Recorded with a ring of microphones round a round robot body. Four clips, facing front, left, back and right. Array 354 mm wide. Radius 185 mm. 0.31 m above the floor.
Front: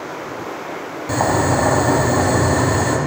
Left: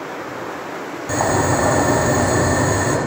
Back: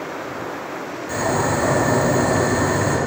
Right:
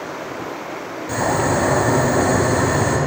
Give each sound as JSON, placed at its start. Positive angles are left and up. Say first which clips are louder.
{"t": 1.1, "sound": "boiling", "louder": "left 1 dB, front 4 dB", "azimuth_deg": 25, "distance_m": 1.1}